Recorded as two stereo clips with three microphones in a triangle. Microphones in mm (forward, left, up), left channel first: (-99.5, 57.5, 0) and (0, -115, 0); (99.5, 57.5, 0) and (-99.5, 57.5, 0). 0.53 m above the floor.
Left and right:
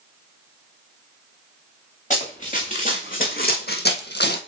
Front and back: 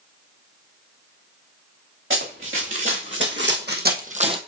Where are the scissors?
I don't hear scissors.